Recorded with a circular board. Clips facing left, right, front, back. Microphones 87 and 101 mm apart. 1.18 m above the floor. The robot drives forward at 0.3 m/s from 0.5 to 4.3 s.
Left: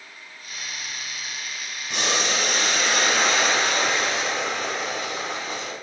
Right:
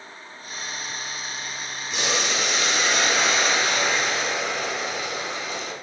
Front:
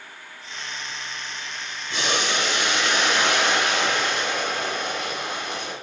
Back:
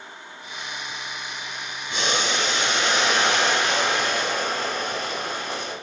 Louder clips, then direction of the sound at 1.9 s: Left 1 dB, even; 110° left.